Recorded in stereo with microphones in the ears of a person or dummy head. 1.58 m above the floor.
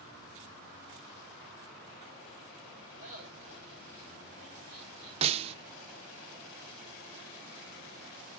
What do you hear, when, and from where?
3.0 s laughter: 45° right (ahead or behind), 4.5 m; by 5.1 s 40° right (ahead or behind), 6 m
5.2 s a snare drum: 35° right (ahead or behind), 0.6 m